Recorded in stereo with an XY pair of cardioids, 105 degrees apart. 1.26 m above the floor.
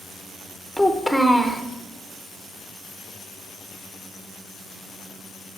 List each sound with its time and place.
0.8 s a child speaking: straight ahead, 0.8 m